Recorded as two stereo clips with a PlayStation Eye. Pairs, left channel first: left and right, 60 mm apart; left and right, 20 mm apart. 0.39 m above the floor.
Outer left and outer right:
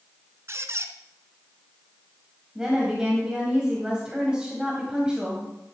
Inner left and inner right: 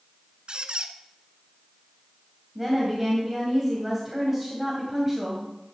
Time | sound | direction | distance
0.5 | a squeak | 55° right (ahead or behind) | 0.6 m
2.5 | a woman speaking | 15° right (ahead or behind) | 2.0 m